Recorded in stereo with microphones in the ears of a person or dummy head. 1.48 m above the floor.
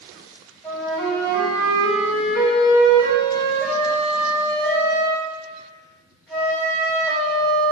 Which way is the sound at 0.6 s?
5° left (ahead or behind).